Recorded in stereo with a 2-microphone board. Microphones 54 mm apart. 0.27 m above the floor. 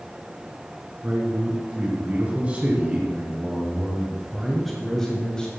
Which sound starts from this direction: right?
A man speaking, at 1.0 s.